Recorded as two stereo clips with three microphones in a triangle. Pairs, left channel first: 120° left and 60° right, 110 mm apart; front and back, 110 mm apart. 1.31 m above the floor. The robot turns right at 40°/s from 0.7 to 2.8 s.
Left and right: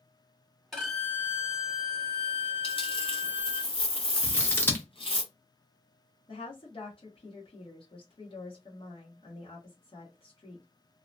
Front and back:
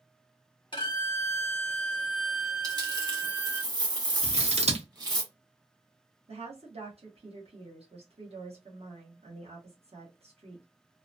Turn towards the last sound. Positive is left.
turn(degrees=155)